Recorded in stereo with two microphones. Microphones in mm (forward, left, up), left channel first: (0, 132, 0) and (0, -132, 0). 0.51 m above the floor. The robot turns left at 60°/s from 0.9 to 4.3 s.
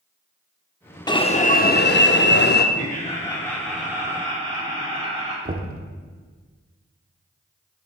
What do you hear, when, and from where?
1.1 s an alarm: 155° left, 0.5 m; by 2.6 s 60° left, 0.5 m
2.8 s laughter: 60° left, 0.9 m; by 5.3 s 35° right, 0.9 m
5.5 s knocking: 35° right (ahead or behind), 0.6 m